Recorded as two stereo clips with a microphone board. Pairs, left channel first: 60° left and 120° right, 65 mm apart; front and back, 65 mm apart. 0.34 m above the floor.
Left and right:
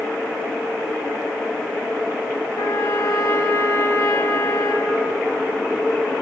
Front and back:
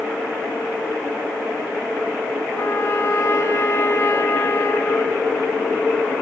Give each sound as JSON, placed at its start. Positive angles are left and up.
{"t": 2.6, "sound": "a trumpet", "azimuth_deg": 40, "distance_m": 2.5}